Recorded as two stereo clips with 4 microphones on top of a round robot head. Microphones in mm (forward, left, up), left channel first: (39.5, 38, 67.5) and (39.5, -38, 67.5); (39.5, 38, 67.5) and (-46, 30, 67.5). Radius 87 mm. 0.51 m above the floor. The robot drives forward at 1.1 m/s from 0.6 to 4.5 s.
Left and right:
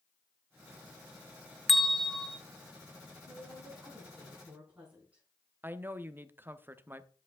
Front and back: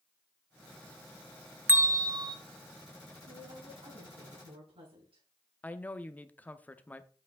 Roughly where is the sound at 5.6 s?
Ahead right.